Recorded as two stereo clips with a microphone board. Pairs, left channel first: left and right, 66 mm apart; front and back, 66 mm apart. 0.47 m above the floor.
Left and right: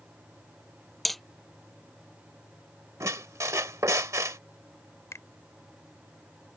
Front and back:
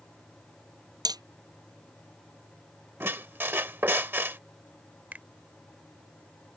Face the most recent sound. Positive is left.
turn(degrees=120)